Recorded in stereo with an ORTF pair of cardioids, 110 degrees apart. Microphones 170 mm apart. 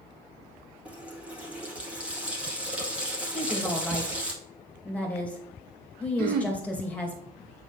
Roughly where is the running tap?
Ahead.